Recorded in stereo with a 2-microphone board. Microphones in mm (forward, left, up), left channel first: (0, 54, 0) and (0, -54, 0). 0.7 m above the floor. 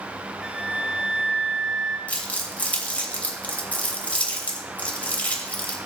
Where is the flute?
10° right (ahead or behind), 1.1 m.